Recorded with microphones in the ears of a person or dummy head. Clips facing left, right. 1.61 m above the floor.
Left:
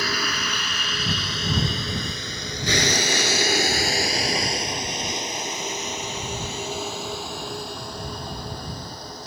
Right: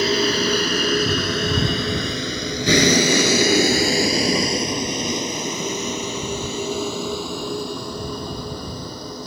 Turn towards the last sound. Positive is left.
turn(degrees=-80)